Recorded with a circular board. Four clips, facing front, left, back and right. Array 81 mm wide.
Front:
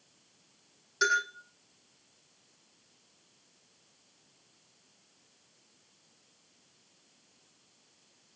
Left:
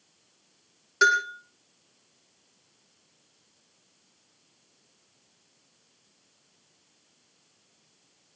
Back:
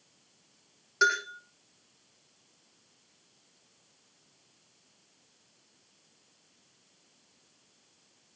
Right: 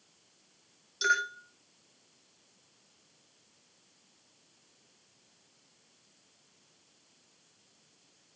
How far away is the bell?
About 8.5 m.